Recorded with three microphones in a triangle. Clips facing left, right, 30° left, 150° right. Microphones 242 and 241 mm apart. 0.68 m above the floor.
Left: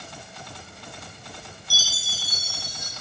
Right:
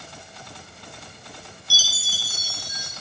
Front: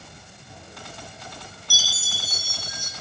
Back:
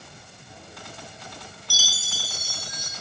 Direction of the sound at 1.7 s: 95° right.